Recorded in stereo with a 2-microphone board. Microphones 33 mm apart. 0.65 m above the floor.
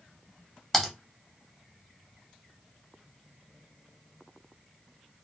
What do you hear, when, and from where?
0.7 s typing on a keyboard: 5° left (ahead or behind), 0.6 m